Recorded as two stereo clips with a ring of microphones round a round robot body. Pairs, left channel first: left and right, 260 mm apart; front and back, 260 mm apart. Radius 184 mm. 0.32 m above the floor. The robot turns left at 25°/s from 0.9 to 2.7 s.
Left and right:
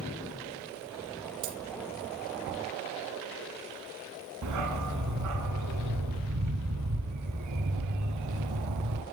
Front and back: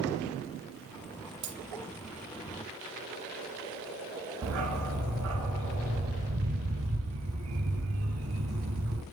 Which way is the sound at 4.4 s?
130° right.